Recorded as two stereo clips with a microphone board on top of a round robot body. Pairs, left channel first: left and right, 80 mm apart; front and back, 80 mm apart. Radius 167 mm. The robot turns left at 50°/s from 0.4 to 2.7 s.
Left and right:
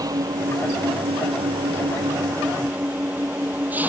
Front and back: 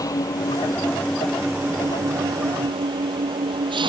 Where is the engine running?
45° right; by 3.9 s 160° right.